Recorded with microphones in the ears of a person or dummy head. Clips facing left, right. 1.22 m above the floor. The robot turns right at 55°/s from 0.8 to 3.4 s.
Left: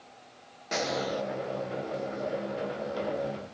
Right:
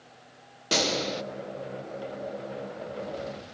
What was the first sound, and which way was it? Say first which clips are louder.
A gunshot: right 2 dB; 40° right (ahead or behind).